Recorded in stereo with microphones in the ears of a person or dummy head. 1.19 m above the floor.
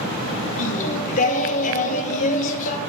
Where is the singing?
45° left (ahead or behind), 0.8 m.